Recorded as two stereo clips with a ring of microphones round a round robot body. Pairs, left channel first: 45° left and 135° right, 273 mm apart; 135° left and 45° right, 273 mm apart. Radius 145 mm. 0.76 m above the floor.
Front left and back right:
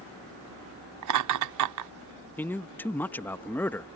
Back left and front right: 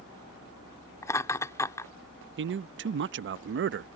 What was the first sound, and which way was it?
Laughter, 145° right.